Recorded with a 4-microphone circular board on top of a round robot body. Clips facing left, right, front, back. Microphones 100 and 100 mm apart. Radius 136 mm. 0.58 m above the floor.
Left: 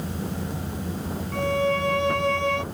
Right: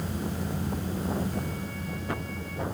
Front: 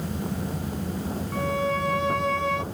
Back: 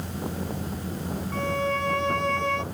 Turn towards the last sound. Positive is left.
turn(degrees=85)